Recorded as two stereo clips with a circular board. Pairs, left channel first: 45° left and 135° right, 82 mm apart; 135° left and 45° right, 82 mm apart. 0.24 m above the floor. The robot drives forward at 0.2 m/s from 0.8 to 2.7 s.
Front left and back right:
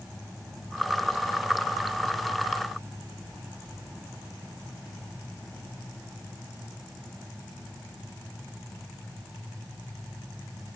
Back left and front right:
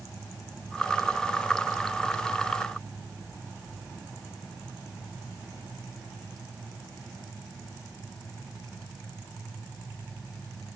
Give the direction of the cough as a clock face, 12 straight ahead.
I don't hear a cough.